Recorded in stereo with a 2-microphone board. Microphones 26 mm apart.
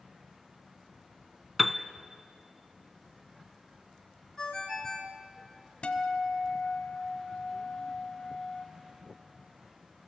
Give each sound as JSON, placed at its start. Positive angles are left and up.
{"t": 1.6, "sound": "a piano", "side_deg": -5, "distance_m": 0.8}
{"t": 4.4, "sound": "a ringtone", "side_deg": 20, "distance_m": 2.0}
{"t": 5.8, "sound": "a guitar", "side_deg": 45, "distance_m": 1.5}